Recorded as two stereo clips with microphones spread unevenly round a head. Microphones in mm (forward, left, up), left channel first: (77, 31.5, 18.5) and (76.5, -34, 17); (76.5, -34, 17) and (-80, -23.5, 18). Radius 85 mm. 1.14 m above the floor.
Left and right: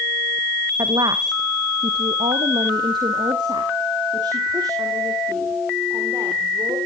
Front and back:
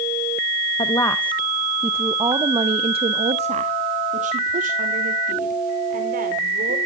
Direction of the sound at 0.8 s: 65° right.